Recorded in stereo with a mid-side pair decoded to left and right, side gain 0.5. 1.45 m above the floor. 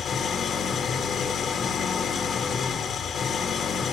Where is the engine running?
50° left, 2.5 m.